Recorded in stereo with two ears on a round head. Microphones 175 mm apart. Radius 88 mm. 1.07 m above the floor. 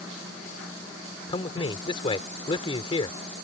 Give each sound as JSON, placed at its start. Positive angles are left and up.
{"t": 1.3, "sound": "a man speaking", "side_deg": 25}